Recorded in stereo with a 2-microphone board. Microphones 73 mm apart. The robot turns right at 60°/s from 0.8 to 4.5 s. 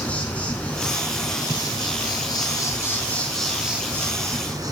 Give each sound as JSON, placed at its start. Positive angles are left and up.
{"t": 0.0, "sound": "an insect", "azimuth_deg": 20, "distance_m": 1.2}